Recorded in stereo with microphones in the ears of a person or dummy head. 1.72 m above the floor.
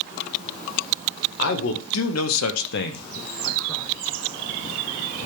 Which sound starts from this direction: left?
A man speaking, at 1.4 s.